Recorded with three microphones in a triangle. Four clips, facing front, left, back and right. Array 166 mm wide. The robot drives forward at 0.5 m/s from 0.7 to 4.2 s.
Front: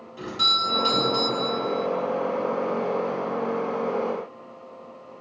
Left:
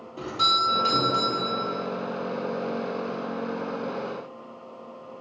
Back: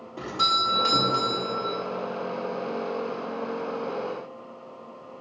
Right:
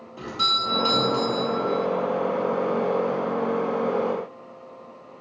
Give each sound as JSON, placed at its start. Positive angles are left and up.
{"t": 0.2, "sound": "a doorbell", "azimuth_deg": 180, "distance_m": 2.0}